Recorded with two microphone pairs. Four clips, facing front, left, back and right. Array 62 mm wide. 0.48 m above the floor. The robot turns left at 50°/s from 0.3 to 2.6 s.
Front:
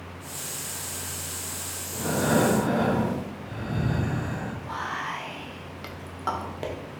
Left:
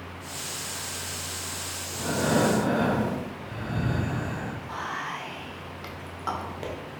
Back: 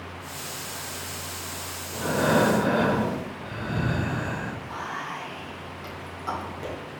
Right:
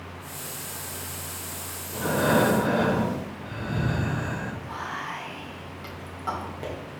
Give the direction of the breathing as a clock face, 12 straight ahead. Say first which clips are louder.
Right 3 dB, back 2 dB; 4 o'clock.